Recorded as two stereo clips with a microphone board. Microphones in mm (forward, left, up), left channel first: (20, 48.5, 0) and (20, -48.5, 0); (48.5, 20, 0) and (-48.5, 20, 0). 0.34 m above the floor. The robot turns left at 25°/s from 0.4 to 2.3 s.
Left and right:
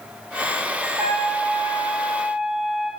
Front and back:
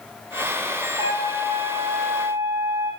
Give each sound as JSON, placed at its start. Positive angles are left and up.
{"t": 1.0, "sound": "a trumpet", "azimuth_deg": -145, "distance_m": 6.5}